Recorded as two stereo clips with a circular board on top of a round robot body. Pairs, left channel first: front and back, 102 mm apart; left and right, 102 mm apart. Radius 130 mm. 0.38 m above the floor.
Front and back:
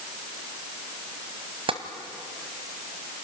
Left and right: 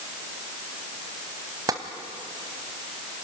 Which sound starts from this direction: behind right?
Tapping, at 1.7 s.